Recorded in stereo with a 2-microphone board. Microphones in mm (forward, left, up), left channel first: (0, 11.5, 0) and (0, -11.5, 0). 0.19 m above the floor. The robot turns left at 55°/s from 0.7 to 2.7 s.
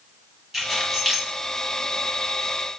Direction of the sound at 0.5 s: 15° right (ahead or behind).